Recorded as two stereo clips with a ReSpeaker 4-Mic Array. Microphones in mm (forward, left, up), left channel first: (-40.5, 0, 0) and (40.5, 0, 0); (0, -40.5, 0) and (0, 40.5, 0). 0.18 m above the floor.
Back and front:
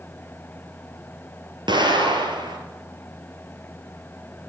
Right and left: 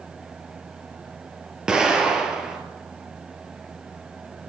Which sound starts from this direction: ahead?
An explosion, at 1.7 s.